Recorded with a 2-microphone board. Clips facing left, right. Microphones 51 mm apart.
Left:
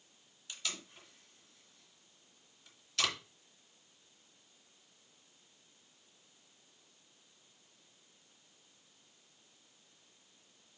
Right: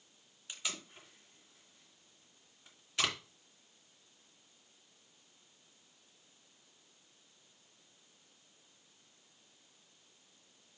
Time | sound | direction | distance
0.5 | tape being pulled | 20° right (ahead or behind) | 2.5 m